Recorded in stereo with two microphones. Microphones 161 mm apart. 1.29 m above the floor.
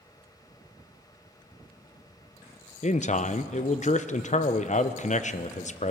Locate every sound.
2.8 s a man speaking: 45° left (ahead or behind), 0.5 m